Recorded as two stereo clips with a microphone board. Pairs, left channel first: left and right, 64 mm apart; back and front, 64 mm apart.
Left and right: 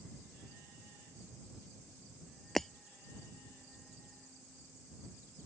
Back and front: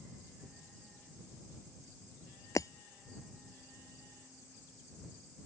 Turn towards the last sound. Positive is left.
turn(degrees=175)